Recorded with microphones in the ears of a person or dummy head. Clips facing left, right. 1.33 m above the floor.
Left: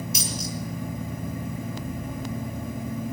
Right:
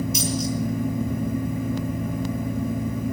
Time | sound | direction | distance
0.1 | a dropped coin | 60° left (ahead or behind) | 6 m